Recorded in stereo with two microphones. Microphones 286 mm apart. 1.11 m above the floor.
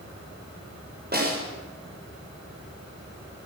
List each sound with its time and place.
1.1 s a snare drum: 35° right (ahead or behind), 5.5 m